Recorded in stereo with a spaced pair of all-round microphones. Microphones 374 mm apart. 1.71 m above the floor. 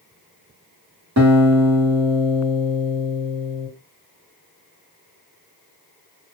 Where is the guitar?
50° right (ahead or behind), 1.0 m.